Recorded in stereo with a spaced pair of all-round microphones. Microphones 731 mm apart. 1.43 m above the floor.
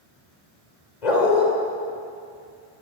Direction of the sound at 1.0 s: 65° left (ahead or behind).